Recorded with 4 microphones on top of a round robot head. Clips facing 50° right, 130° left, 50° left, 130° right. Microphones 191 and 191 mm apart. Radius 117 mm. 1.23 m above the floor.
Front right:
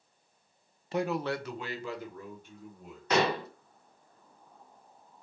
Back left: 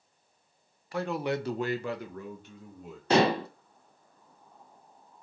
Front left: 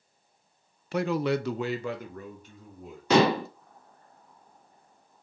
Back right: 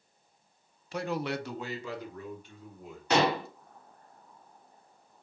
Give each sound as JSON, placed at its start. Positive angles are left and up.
{"t": 0.9, "sound": "a man speaking", "azimuth_deg": 15, "distance_m": 0.5}
{"t": 3.1, "sound": "dishes clattering", "azimuth_deg": 70, "distance_m": 0.6}